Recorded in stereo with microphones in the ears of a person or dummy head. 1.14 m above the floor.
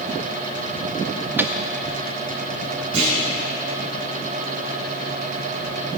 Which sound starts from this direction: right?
A clunk, at 2.9 s.